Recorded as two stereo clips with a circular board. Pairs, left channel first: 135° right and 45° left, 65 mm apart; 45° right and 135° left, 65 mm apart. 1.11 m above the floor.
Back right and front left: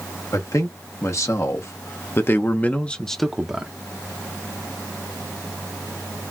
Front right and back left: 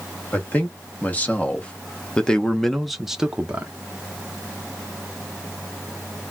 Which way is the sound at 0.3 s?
105° right.